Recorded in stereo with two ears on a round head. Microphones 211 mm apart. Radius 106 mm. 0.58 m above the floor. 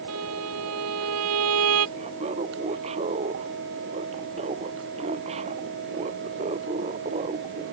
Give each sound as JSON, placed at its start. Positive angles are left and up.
{"t": 0.1, "sound": "a violin", "side_deg": -75}
{"t": 2.0, "sound": "laughter", "side_deg": -25}